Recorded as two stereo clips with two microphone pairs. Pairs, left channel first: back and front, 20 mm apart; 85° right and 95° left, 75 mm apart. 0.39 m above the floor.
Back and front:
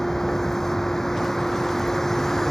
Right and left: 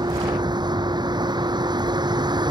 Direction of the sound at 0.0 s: 110° left.